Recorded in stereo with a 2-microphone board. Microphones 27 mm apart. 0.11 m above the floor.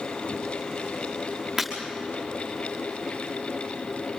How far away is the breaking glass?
About 6 m.